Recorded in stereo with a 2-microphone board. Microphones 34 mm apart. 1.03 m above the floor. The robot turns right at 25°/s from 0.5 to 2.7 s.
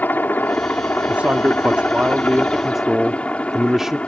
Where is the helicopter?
80° left; by 4.1 s 135° left.